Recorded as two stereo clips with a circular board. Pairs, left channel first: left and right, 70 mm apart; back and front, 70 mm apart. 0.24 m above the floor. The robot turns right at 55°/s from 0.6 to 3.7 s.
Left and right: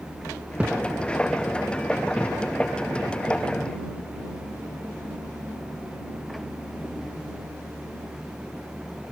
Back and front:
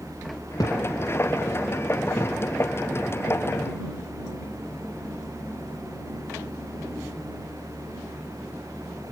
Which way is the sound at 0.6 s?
165° right.